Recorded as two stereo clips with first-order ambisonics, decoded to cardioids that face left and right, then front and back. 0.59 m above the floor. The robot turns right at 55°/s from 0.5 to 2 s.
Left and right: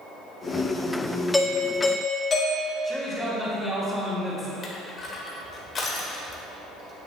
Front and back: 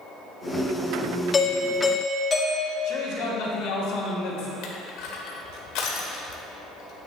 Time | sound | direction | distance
1.3 | a doorbell | 15° left | 1.5 m
2.8 | a man speaking | straight ahead | 3 m
4.6 | crushing | 25° left | 1.5 m